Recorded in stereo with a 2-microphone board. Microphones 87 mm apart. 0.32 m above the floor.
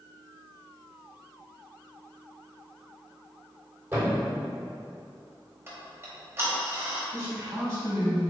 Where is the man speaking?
40° right (ahead or behind), 1.6 m.